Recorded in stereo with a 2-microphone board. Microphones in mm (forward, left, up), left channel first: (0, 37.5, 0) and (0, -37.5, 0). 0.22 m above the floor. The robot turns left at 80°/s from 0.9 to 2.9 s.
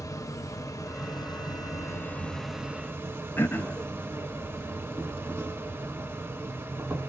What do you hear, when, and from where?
0.0 s an insect: 130° left, 0.8 m; by 7.1 s 30° right, 0.8 m
3.4 s throat clearing: 30° left (ahead or behind), 0.7 m